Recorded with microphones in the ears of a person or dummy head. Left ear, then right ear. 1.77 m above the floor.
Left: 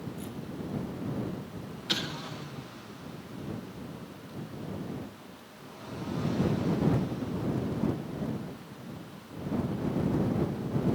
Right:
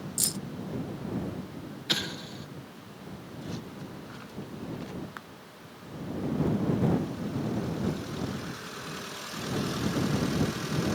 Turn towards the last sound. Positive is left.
turn(degrees=-15)  # may be behind; listen again after turning